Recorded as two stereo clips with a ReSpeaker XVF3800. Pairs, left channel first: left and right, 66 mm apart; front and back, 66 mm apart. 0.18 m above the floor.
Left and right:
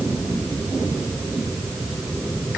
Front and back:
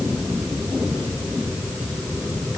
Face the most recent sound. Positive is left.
No sound to turn to.